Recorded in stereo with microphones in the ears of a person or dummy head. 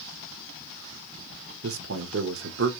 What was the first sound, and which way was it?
A man speaking, 75° right (ahead or behind).